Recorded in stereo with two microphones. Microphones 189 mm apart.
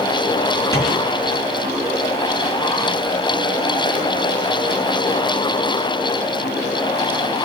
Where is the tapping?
15° left (ahead or behind), 5 m.